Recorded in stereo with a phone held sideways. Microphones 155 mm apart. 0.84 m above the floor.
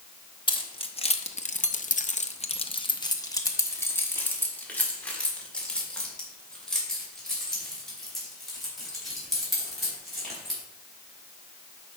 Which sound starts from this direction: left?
Keys jangling, at 0.5 s.